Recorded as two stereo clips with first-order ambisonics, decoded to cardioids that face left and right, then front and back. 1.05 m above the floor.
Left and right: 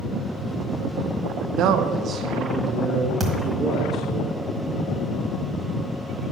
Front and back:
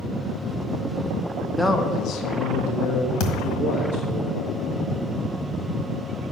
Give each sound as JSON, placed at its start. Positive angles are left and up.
{"t": 1.6, "sound": "a man speaking", "azimuth_deg": -90, "distance_m": 0.7}
{"t": 3.2, "sound": "a thud", "azimuth_deg": -5, "distance_m": 1.5}